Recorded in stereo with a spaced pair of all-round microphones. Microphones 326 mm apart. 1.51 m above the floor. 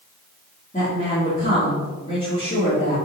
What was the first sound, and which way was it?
A woman speaking, 25° left (ahead or behind).